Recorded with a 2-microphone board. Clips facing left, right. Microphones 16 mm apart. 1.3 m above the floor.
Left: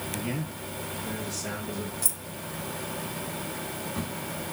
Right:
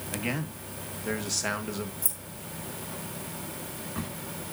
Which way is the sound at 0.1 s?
80° right.